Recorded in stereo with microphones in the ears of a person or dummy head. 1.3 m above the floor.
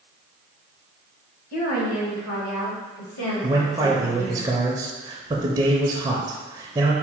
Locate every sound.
1.5 s a woman speaking: 45° left (ahead or behind), 1.0 m; by 4.4 s 85° left, 2.5 m
3.4 s a man speaking: 20° right (ahead or behind), 0.6 m